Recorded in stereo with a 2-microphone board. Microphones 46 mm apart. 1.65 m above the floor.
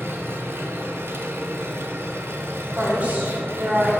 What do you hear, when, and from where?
0.0 s an engine running: 65° right (ahead or behind), 0.9 m
2.8 s a woman speaking: 35° right (ahead or behind), 2.5 m